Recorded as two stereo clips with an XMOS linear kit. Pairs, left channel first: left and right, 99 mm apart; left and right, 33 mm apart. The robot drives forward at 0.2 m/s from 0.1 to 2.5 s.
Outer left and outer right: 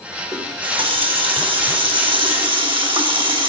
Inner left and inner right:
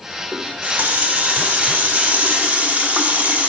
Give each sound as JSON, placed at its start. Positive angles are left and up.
{"t": 0.3, "sound": "a running tap", "side_deg": -65, "distance_m": 3.5}